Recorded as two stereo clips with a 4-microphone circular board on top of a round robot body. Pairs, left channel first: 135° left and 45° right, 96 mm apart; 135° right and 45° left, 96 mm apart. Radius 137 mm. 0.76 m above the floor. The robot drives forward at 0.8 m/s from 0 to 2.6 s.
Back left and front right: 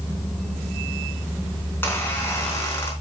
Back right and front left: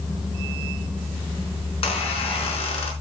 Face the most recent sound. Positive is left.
turn(degrees=-160)